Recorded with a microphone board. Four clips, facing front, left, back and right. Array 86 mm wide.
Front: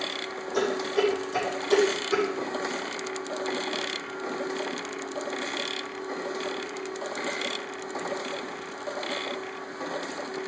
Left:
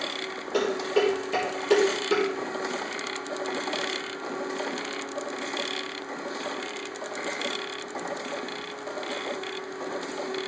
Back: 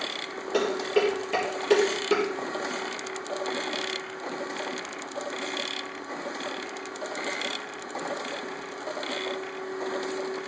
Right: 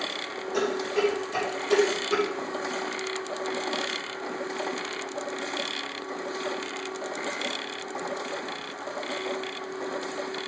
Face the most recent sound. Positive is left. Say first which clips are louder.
# left 2 dB, back 1 dB
turn(degrees=155)